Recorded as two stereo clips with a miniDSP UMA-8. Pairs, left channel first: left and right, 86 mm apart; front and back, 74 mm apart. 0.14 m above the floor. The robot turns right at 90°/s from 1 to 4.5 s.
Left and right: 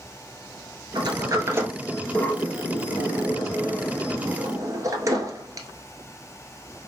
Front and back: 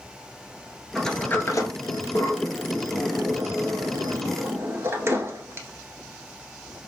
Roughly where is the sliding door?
Right.